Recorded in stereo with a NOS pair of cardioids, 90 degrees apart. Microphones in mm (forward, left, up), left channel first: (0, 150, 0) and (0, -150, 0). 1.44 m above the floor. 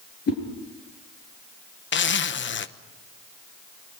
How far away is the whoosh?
About 7 m.